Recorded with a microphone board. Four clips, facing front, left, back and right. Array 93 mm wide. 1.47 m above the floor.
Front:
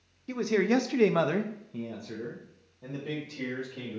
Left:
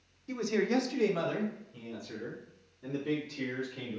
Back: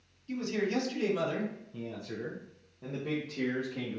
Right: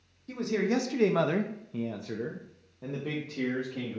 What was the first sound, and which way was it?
A man speaking, 10° left.